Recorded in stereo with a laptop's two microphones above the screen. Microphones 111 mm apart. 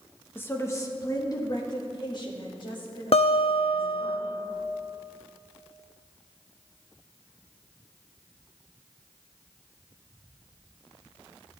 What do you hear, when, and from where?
0.3 s a woman speaking: 15° left (ahead or behind), 0.9 m; by 4.1 s 50° left (ahead or behind), 2.5 m
3.1 s a guitar: 60° left (ahead or behind), 0.8 m